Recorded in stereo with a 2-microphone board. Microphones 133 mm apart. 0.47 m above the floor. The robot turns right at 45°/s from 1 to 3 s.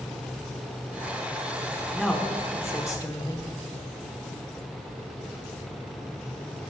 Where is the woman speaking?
Straight ahead, 1.1 m; by 3.4 s 50° left, 1.1 m.